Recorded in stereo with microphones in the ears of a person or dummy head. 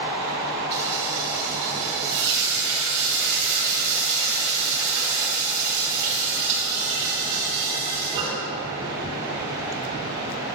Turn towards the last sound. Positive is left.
turn(degrees=-60)  # may be behind; listen again after turning